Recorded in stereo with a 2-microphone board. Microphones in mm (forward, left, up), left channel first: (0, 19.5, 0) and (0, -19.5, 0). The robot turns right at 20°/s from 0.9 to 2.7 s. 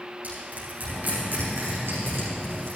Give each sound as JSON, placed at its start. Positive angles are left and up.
{"t": 0.2, "sound": "crushing", "side_deg": -45, "distance_m": 5.5}